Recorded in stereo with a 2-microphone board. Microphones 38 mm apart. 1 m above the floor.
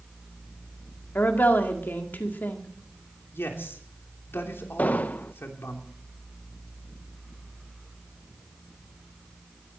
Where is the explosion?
45° left (ahead or behind), 0.7 m.